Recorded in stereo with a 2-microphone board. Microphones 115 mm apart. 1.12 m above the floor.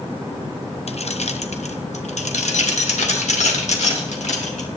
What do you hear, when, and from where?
0.9 s keys jangling: 60° left (ahead or behind), 0.9 m; by 4.7 s 85° left, 3 m